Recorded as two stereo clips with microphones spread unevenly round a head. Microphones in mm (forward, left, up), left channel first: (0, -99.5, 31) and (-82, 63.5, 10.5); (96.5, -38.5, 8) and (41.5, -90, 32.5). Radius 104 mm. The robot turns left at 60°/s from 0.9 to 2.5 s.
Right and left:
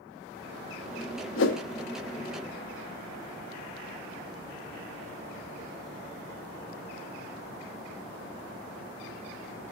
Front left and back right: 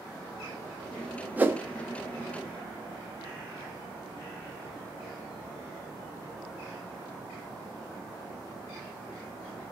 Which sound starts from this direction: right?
A whoosh, at 1.4 s.